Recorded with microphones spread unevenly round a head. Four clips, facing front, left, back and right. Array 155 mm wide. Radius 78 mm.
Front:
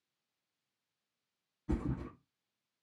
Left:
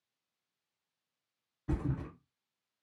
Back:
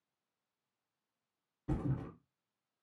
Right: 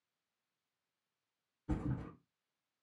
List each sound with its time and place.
1.7 s a thud: 135° left, 1.3 m